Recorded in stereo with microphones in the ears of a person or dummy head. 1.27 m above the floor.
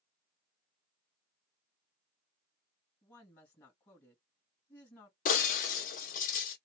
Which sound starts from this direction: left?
Breaking glass, at 5.2 s.